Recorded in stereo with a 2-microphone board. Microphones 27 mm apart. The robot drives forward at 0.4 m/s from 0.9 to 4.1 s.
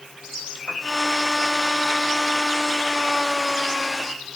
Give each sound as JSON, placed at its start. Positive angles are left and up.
{"t": 0.7, "sound": "a piano", "side_deg": 35, "distance_m": 8.5}